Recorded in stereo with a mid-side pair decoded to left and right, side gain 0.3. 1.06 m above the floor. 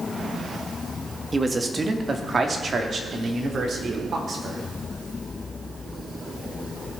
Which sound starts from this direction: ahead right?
A man speaking, at 1.3 s.